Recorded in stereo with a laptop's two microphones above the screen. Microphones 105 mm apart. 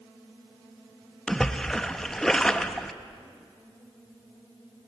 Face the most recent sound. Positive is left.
turn(degrees=5)  # may be behind; listen again after turning